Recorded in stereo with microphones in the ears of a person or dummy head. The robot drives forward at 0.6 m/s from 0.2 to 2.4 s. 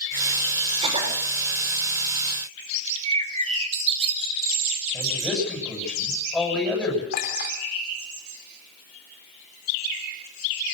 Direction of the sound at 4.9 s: 5° left (ahead or behind).